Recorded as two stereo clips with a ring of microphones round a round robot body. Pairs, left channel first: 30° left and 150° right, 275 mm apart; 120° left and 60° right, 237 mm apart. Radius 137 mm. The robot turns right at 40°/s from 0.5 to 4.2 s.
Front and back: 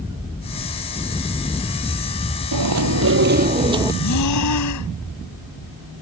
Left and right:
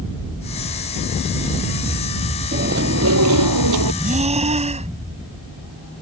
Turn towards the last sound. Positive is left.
turn(degrees=5)